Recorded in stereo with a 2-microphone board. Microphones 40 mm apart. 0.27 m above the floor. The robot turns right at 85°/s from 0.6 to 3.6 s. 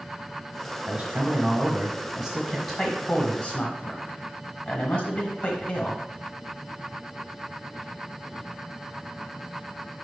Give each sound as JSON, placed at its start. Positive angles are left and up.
{"t": 0.9, "sound": "a man speaking", "side_deg": -15, "distance_m": 1.2}